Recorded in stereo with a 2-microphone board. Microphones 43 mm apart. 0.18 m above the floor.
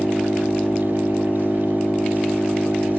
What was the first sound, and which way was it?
An engine running, 50° left (ahead or behind).